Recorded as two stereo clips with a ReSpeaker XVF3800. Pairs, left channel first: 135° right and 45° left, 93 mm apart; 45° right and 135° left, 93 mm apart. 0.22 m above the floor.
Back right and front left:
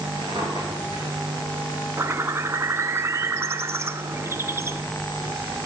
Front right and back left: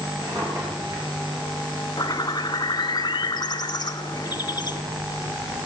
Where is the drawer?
85° left, 6 m.